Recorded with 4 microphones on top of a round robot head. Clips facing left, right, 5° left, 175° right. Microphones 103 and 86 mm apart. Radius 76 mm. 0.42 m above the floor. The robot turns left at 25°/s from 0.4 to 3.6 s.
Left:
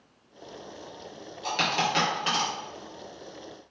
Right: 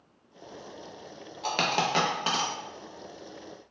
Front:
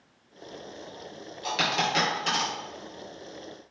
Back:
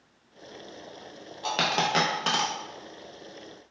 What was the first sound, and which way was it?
A dropped coin, 120° right.